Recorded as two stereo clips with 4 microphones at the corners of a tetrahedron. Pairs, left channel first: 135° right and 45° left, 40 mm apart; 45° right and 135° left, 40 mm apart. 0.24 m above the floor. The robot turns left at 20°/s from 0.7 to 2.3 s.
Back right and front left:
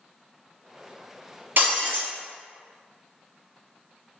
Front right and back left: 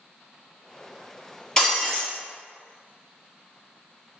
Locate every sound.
1.6 s breaking glass: 20° left, 1.9 m; by 2.1 s 10° left, 1.9 m